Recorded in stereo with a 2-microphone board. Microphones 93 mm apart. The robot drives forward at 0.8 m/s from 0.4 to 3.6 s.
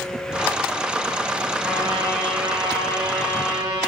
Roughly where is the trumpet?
Right.